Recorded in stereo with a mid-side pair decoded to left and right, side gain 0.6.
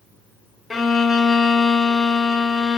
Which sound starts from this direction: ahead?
A violin, at 0.7 s.